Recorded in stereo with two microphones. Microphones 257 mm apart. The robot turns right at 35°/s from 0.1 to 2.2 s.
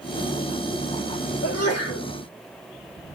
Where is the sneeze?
65° left (ahead or behind), 2.5 m; by 2.1 s 85° left, 2.5 m.